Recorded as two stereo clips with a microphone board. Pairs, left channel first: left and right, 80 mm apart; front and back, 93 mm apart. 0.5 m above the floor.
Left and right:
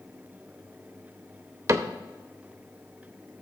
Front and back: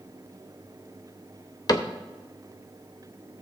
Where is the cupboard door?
45° right, 0.7 m.